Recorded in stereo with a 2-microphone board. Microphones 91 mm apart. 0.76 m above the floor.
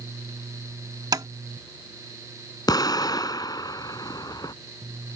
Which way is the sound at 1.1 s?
50° right (ahead or behind).